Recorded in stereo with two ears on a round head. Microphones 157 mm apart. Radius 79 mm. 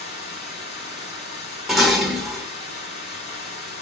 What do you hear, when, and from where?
0.0 s running water: 40° left (ahead or behind), 5.5 m
1.7 s dishes clattering: centre (ahead or behind), 1.4 m